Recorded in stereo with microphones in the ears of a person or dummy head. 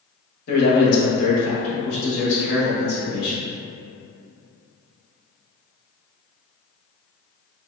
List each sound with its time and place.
0.5 s a man speaking: 50° left (ahead or behind), 0.9 m